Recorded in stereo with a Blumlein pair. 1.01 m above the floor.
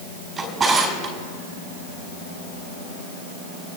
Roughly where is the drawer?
Ahead.